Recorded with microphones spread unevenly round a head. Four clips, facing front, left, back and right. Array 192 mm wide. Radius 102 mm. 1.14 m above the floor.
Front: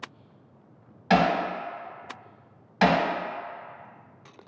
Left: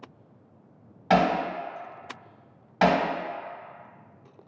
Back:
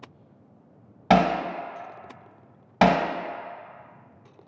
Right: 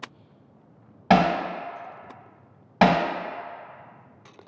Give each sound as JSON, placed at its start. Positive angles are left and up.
{"t": 1.1, "sound": "hammering", "azimuth_deg": -125, "distance_m": 1.1}